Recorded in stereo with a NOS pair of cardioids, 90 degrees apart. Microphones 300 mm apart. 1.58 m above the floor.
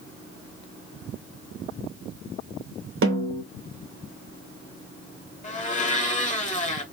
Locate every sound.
3.0 s a snare drum: 40° right, 1.2 m
5.4 s a blender: 25° left, 0.9 m